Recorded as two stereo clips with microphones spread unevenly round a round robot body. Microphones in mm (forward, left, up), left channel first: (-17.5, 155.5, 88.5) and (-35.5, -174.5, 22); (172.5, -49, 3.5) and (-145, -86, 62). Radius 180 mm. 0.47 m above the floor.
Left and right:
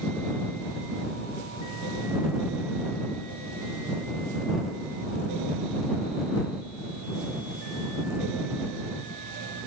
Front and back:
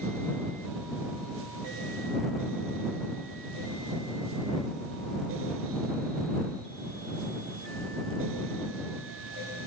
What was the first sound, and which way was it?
Only background noise.